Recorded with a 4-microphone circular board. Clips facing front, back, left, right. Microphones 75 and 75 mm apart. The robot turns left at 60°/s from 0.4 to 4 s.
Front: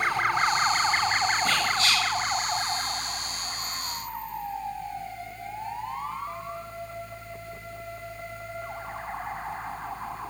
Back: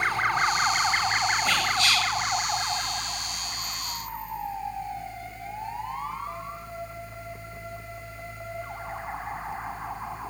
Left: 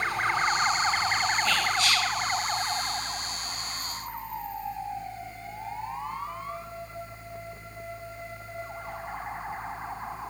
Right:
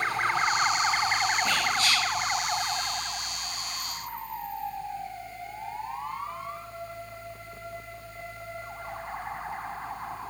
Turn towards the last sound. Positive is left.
turn(degrees=180)